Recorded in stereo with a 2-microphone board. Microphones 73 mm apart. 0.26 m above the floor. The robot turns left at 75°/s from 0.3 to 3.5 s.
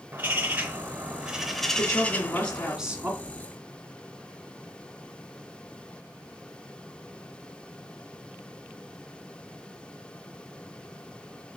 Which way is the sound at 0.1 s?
25° right (ahead or behind).